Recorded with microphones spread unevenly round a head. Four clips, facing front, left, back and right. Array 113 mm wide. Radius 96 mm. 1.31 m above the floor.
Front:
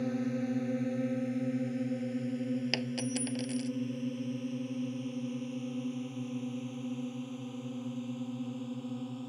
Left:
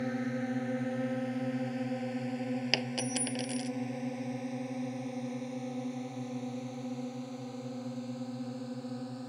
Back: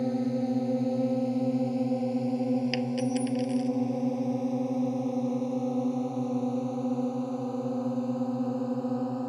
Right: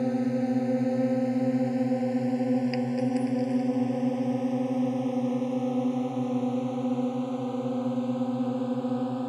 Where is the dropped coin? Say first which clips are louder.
Right 9 dB, back 7 dB; 90° left.